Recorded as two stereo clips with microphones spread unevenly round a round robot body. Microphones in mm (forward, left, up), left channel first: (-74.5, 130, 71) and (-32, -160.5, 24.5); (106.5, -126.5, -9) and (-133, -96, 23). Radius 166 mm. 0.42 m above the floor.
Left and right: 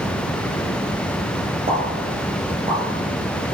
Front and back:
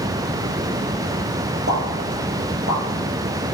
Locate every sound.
1.7 s a pop: 150° right, 4.5 m